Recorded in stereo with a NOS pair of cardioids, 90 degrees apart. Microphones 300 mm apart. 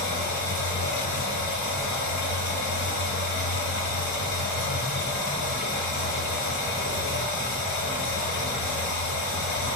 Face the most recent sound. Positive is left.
turn(degrees=65)